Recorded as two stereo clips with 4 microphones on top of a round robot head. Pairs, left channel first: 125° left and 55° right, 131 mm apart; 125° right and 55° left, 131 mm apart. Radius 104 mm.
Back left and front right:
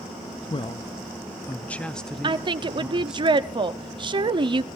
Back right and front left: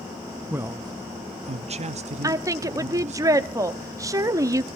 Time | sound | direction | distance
0.5 | a man speaking | 125° left | 0.6 m
2.2 | a woman speaking | 5° right | 1.1 m